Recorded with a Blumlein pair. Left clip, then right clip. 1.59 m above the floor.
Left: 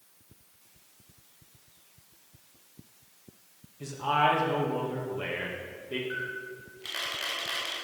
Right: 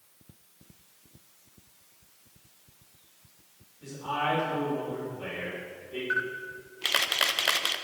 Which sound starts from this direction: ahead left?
A man speaking, at 3.8 s.